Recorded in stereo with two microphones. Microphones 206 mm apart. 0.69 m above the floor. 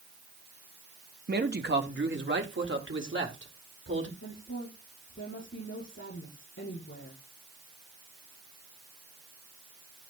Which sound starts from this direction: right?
A man speaking, at 1.3 s.